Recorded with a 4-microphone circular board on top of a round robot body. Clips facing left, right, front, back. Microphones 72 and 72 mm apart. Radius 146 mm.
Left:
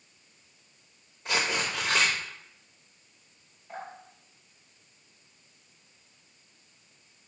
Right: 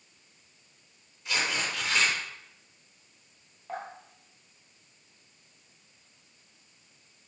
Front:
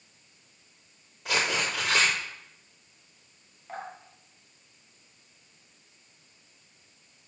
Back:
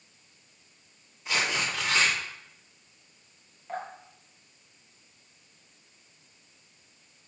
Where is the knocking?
No knocking in this recording.